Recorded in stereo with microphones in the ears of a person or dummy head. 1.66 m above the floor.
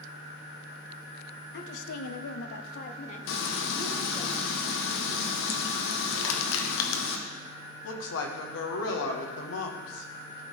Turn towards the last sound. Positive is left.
turn(degrees=75)  # may be behind; listen again after turning